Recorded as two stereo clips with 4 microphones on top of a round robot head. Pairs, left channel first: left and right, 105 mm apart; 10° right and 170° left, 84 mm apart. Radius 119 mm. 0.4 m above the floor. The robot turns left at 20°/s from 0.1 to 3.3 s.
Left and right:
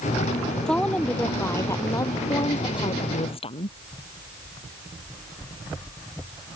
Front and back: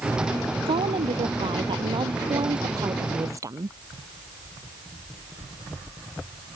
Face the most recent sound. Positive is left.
turn(degrees=120)